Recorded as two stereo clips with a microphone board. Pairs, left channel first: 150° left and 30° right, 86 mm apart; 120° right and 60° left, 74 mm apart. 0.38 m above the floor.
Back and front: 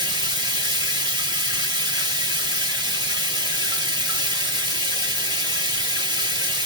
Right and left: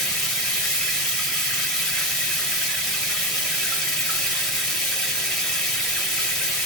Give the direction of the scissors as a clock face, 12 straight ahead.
I don't hear scissors.